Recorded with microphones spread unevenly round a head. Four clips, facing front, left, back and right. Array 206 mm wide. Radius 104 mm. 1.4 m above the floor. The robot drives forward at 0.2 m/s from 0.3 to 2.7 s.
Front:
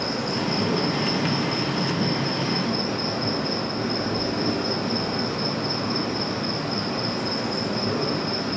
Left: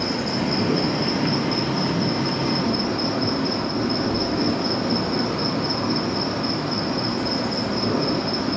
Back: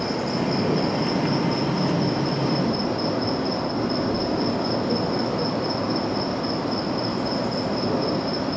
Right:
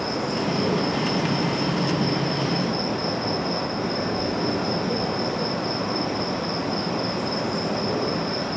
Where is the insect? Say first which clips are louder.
Left 1 dB, back 2 dB; 115° left, 3.5 m; by 8.6 s 125° left, 3.5 m.